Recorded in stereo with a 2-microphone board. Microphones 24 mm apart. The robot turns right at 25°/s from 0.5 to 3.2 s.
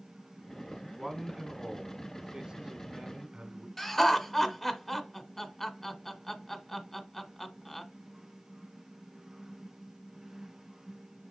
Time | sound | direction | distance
1.0 | a man speaking | 165° right | 1.2 m
3.8 | laughter | 15° left (ahead or behind) | 1.2 m